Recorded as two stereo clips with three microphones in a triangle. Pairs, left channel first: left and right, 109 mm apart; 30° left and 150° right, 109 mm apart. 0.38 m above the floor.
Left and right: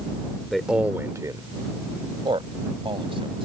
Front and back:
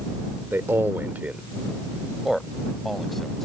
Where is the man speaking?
175° left; by 3.5 s 60° right.